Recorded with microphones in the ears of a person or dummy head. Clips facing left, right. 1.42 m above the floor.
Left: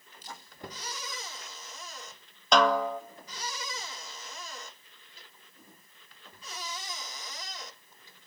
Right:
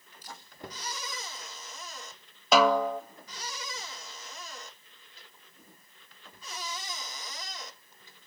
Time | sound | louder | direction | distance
0.2 | a camera shutter | left 1 dB | 30° left (ahead or behind) | 6 m
2.5 | a snare drum | right 1 dB | 5° right (ahead or behind) | 0.7 m